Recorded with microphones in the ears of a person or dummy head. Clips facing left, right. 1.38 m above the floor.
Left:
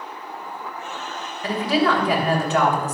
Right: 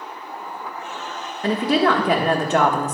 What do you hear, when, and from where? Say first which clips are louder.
1.4 s a woman speaking: right 2 dB; 35° right (ahead or behind), 1.2 m